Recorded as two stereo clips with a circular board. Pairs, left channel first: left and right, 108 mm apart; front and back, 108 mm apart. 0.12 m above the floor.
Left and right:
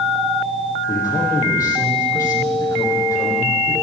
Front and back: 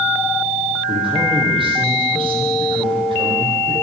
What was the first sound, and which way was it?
A man speaking, 150° left.